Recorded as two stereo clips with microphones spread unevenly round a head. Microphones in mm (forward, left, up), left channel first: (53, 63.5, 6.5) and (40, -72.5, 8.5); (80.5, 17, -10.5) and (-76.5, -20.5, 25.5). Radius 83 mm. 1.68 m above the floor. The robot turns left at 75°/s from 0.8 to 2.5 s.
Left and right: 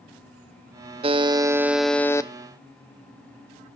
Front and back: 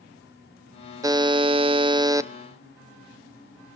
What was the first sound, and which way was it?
A buzzer, 125° right.